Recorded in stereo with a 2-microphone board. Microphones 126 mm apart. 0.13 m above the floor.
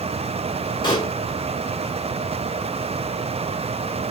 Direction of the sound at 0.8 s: 40° left (ahead or behind).